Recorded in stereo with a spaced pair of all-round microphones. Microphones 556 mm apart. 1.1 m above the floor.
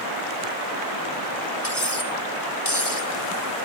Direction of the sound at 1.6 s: 25° left (ahead or behind).